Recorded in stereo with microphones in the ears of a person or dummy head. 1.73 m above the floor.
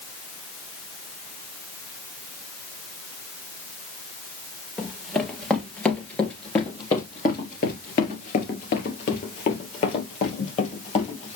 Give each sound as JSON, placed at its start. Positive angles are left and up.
{"t": 4.8, "sound": "running footsteps", "side_deg": -5, "distance_m": 2.5}